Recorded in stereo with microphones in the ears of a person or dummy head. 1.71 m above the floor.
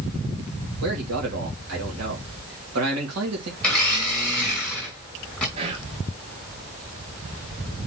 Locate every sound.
0.8 s a man speaking: 75° right (ahead or behind), 1.9 m
3.6 s a blender: 5° left (ahead or behind), 1.9 m
5.6 s whispering: 30° right (ahead or behind), 1.0 m